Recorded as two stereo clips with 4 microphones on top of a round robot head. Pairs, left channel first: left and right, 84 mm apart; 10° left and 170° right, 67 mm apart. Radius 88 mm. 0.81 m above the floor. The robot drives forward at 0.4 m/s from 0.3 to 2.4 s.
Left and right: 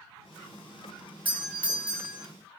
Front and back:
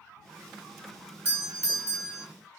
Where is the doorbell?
150° right, 1.3 m; by 2.2 s 160° right, 1.6 m.